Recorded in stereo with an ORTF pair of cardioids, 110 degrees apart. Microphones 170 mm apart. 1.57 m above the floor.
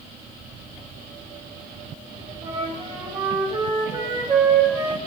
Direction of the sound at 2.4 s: 25° right.